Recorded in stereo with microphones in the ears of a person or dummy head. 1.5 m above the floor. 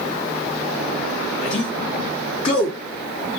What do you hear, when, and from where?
1.4 s a man speaking: 30° left (ahead or behind), 1.5 m